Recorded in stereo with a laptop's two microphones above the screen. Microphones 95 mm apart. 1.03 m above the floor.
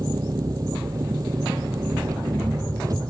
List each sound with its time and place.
0.0 s an engine running: 40° right (ahead or behind)